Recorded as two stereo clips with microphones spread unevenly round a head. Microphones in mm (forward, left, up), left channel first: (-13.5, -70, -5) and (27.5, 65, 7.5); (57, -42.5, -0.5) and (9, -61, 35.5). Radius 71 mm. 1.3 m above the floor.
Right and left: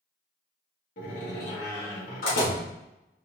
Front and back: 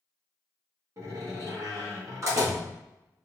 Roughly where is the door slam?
Behind right.